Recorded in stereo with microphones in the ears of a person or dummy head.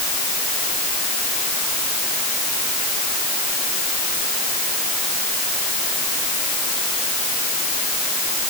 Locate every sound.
Only background noise.